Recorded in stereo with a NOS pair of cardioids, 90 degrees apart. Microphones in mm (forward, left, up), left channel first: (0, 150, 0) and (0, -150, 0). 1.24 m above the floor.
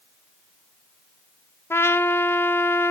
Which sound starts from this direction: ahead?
A trumpet, at 1.7 s.